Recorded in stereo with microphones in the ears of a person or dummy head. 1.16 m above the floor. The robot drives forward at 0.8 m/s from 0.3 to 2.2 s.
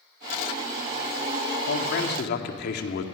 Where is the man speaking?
70° left (ahead or behind), 1.9 m; by 3.0 s 60° left (ahead or behind), 2 m.